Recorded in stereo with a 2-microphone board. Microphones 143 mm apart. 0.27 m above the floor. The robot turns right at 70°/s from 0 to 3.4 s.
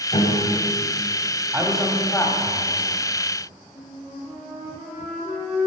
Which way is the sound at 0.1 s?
85° left.